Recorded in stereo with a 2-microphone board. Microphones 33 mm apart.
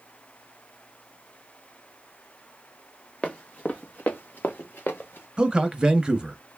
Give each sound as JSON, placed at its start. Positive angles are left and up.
{"t": 3.2, "sound": "running footsteps", "side_deg": 40, "distance_m": 1.5}
{"t": 5.4, "sound": "a man speaking", "side_deg": -25, "distance_m": 1.1}